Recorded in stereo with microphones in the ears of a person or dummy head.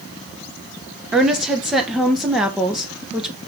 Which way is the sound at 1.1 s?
5° right (ahead or behind).